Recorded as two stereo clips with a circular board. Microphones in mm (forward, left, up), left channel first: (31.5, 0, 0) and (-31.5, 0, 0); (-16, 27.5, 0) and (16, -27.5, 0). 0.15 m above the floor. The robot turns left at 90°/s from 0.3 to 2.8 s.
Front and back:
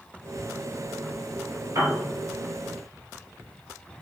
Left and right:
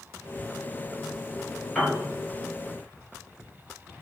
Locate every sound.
1.8 s a piano: 170° right, 1.5 m; by 2.0 s 170° left, 1.5 m